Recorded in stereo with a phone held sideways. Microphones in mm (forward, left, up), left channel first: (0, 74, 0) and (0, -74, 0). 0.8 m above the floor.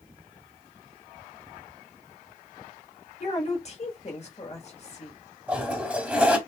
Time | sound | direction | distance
3.2 | a woman speaking | 45° left (ahead or behind) | 1.2 m
5.5 | a toilet flushing | 10° right (ahead or behind) | 0.9 m